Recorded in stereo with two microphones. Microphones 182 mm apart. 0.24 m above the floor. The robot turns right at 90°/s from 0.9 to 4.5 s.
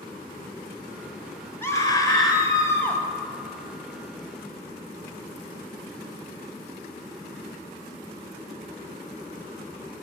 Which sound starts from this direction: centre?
A scream, at 1.6 s.